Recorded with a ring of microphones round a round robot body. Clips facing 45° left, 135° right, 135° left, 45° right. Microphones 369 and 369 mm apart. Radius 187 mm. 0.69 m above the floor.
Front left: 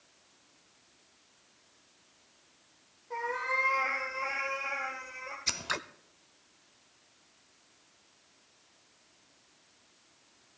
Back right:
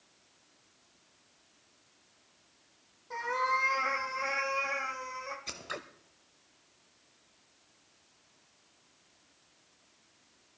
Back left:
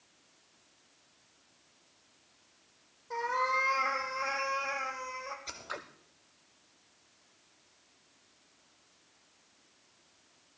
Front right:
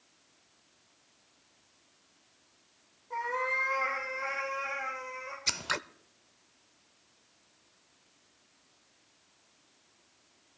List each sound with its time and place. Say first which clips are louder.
3.1 s a cat meowing: even, even; 175° left, 3.5 m
5.5 s scissors: front left 2 dB, front right 5 dB; 20° right, 0.6 m